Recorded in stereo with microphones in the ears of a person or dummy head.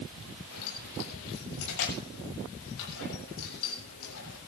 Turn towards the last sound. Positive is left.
turn(degrees=80)